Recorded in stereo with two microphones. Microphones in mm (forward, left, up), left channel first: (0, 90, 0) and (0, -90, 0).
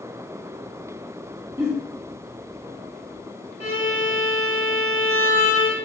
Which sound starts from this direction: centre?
A giggle, at 1.6 s.